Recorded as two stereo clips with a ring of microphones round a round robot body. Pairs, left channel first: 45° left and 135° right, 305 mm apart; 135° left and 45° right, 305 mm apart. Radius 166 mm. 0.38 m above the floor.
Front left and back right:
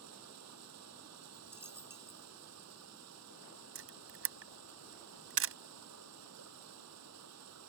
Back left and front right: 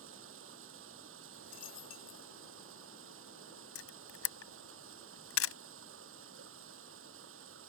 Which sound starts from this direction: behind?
A camera shutter, at 3.8 s.